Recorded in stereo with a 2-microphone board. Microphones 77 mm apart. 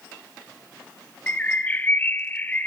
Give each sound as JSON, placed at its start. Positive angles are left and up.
{"t": 1.3, "sound": "a bird", "side_deg": 20, "distance_m": 0.6}